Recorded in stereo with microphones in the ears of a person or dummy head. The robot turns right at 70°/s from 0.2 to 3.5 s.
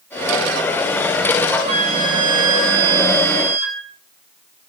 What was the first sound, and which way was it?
A flute, 160° right.